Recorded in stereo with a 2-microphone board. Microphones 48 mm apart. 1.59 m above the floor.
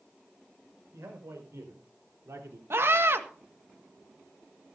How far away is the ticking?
I don't hear ticking.